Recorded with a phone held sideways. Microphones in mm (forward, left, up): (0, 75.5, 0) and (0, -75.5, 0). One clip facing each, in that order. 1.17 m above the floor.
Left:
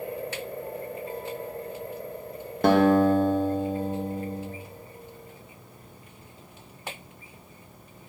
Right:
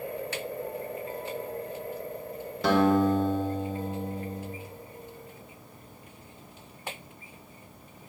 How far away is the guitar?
About 1.4 m.